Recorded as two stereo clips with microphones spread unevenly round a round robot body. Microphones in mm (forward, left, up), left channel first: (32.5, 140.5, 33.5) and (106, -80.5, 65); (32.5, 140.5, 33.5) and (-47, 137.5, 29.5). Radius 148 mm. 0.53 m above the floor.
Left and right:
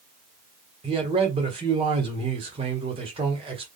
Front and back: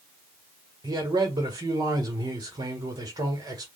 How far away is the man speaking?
About 1.2 m.